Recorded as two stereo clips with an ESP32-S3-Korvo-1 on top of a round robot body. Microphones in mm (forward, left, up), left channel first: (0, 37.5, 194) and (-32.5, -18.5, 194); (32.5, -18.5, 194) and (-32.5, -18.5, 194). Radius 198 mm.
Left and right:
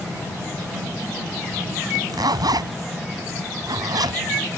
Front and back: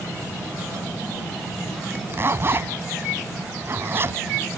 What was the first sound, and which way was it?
A zipper, 130° right.